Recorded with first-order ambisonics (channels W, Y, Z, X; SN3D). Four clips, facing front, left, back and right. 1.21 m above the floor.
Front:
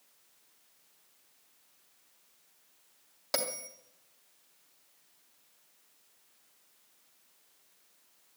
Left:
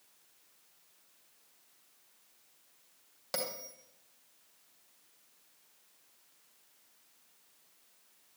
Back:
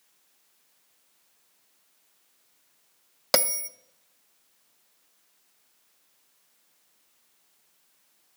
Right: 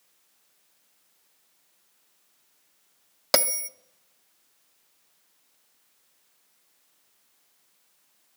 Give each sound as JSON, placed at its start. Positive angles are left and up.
{"t": 3.3, "sound": "a bell", "azimuth_deg": -130, "distance_m": 0.6}